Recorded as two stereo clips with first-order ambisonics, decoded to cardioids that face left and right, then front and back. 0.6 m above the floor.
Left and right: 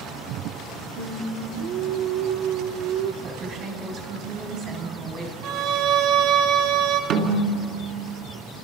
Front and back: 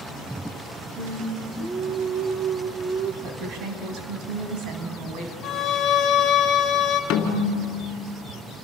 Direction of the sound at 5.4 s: 55° right.